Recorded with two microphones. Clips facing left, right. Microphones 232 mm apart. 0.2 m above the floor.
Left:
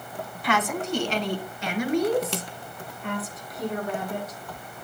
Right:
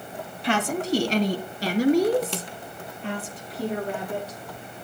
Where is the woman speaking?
30° right (ahead or behind), 1.1 m.